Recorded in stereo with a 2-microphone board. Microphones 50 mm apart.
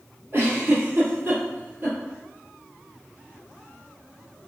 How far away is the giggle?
About 1.7 m.